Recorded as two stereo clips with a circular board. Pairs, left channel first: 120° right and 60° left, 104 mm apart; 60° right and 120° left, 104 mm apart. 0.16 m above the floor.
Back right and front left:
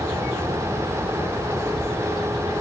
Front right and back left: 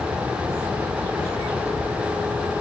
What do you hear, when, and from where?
Only background noise.